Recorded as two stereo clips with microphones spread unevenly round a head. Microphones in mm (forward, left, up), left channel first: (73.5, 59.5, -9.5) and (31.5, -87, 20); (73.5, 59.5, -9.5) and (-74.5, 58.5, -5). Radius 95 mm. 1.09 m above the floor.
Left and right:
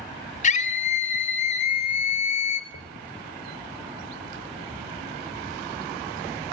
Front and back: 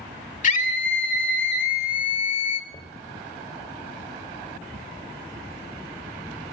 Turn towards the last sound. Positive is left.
turn(degrees=60)